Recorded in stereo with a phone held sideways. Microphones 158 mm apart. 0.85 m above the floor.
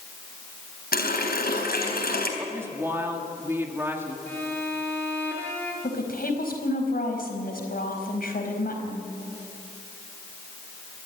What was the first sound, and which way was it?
A running tap, 90° left.